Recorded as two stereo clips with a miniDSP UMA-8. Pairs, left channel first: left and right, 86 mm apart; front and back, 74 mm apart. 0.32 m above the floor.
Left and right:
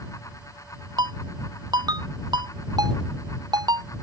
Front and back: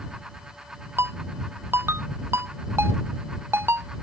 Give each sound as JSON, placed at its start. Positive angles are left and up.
{"t": 1.0, "sound": "a ringtone", "azimuth_deg": -125}